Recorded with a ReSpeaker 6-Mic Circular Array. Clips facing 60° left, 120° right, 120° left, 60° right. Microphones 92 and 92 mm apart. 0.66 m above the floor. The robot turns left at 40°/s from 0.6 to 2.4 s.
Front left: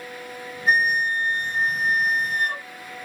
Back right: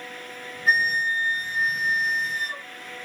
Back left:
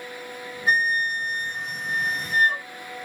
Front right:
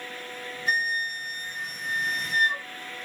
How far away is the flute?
About 1.3 m.